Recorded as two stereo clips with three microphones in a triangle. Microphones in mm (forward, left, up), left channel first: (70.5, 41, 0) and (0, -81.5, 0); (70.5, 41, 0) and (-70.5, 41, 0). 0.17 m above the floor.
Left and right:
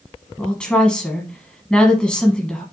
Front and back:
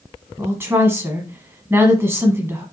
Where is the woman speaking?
135° left, 1.0 m.